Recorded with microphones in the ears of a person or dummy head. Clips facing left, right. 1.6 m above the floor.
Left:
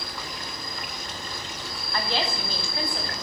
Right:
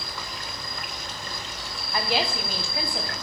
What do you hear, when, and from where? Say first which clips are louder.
0.0 s an insect: left 1 dB; 35° left (ahead or behind), 2.5 m
1.9 s a woman speaking: right 2 dB; 15° right (ahead or behind), 0.9 m